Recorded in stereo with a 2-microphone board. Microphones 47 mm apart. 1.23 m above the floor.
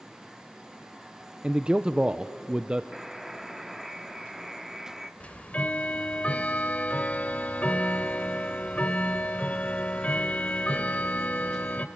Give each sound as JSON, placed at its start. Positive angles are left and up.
{"t": 1.4, "sound": "a man speaking", "side_deg": -20, "distance_m": 0.6}
{"t": 2.9, "sound": "a buzzer", "side_deg": -5, "distance_m": 1.6}
{"t": 5.2, "sound": "ticking", "side_deg": 30, "distance_m": 1.3}